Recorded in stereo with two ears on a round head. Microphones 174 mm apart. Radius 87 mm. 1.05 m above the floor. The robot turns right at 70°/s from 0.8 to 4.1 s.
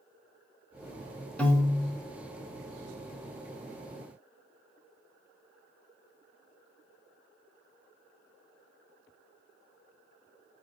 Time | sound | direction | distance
1.4 | a piano | 5° left | 0.8 m